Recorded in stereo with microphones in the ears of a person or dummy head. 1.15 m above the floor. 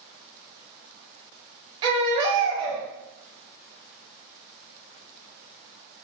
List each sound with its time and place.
1.8 s a baby crying: 25° right (ahead or behind), 0.7 m